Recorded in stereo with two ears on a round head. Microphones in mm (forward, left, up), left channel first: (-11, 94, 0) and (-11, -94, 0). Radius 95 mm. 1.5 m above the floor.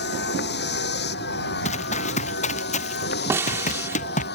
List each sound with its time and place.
0.0 s a vehicle: 50° left (ahead or behind)
1.6 s running footsteps: 30° left (ahead or behind); by 4.3 s 35° left (ahead or behind)
3.3 s a snare drum: 10° right (ahead or behind)